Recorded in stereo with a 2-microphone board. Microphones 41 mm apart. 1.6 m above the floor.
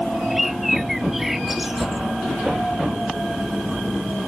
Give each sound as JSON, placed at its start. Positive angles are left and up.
{"t": 0.3, "sound": "a bird", "side_deg": -5}